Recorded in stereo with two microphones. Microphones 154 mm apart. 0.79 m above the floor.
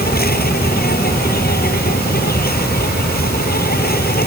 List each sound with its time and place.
0.0 s an insect: 80° left